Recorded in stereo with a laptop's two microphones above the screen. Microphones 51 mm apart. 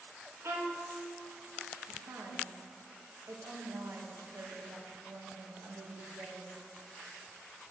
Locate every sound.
0.4 s a violin: 50° right (ahead or behind), 1.7 m
1.9 s a woman speaking: 60° right (ahead or behind), 1.5 m